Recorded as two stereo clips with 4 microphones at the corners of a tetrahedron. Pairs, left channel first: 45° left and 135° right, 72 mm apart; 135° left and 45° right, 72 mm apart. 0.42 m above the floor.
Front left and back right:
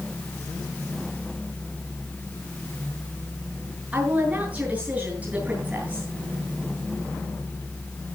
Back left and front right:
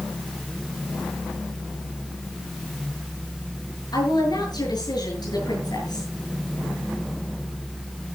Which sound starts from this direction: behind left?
A woman speaking, at 3.9 s.